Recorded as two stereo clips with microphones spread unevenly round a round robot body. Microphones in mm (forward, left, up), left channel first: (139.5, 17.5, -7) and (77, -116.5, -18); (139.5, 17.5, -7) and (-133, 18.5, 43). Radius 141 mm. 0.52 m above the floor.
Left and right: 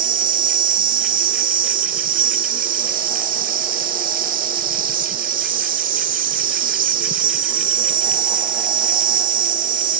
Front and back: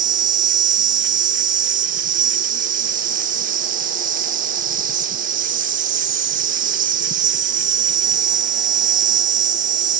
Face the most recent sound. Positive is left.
turn(degrees=-115)